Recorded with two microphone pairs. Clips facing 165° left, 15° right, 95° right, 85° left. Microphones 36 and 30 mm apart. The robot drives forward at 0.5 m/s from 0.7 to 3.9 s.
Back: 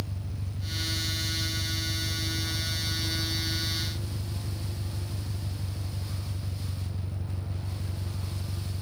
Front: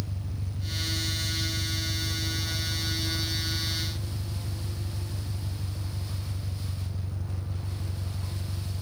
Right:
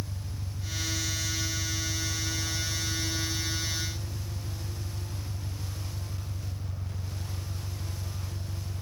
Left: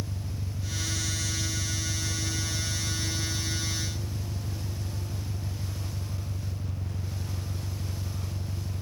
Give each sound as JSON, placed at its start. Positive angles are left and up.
{"t": 0.0, "sound": "an engine running", "azimuth_deg": 85}